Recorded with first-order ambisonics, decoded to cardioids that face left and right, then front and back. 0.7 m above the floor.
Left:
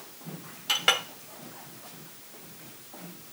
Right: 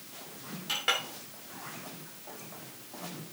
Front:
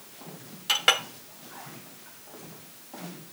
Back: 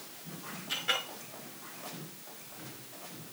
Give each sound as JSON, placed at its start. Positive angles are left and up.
{"t": 0.7, "sound": "a clink", "azimuth_deg": 25, "distance_m": 0.9}